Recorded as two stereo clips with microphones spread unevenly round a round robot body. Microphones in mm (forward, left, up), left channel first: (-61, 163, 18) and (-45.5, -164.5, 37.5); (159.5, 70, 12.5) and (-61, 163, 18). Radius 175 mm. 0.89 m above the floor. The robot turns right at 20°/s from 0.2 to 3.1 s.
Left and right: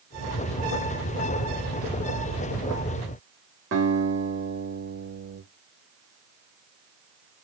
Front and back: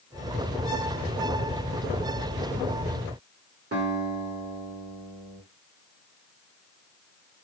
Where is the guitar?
140° right, 1.9 m.